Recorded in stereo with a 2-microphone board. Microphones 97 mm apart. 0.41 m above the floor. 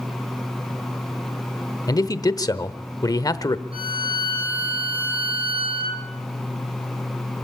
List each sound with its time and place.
1.9 s a man speaking: 40° left (ahead or behind), 1.0 m
3.7 s a violin: 70° right (ahead or behind), 6.5 m